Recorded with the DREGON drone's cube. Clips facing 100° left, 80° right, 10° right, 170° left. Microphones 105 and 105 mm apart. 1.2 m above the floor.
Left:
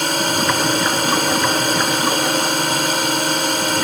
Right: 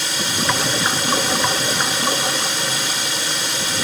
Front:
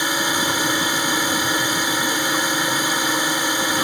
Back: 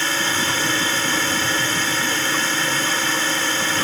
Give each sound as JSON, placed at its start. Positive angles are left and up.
{"t": 0.0, "sound": "a drone", "azimuth_deg": 65}